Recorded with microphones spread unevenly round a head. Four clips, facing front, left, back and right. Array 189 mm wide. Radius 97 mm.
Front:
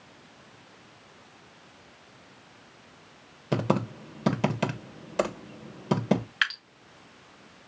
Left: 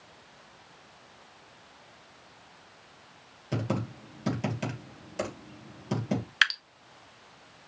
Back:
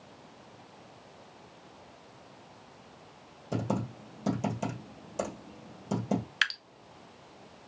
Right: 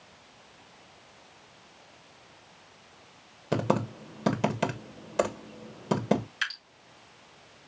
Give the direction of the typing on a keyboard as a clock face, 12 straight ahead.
2 o'clock.